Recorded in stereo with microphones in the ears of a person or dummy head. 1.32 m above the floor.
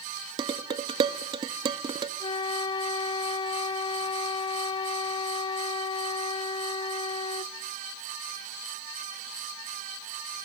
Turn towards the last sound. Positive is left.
turn(degrees=25)  # may be behind; listen again after turning